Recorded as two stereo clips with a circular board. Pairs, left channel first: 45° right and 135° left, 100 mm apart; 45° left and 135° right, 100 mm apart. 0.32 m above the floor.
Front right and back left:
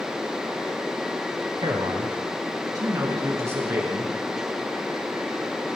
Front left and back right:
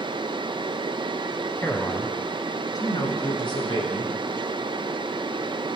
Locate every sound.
1.6 s a man speaking: 115° left, 2.5 m; by 4.1 s 70° left, 4.5 m